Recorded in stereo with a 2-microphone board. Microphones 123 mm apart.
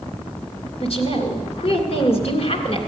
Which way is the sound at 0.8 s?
55° left (ahead or behind).